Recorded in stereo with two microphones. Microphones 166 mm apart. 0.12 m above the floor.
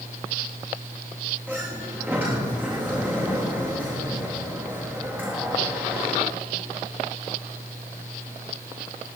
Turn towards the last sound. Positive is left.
turn(degrees=-10)  # may be behind; listen again after turning